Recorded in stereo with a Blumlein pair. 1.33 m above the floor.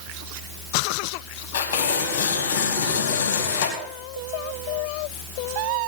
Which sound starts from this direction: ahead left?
Tearing paper, at 1.5 s.